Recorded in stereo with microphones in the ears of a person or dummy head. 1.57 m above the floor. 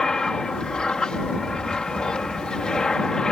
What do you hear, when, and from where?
0.0 s an aircraft: 5° left (ahead or behind)